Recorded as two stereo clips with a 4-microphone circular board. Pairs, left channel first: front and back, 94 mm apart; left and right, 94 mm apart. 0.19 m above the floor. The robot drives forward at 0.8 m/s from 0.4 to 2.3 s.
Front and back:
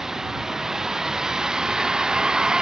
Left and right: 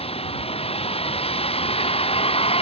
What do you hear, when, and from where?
0.0 s a vehicle: 95° left; by 2.6 s 100° left